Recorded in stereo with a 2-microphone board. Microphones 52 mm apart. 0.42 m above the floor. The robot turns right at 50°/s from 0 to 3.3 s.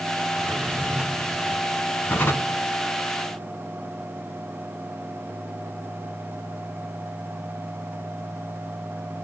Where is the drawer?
55° right, 1.5 m; by 2.6 s 55° left, 1.5 m.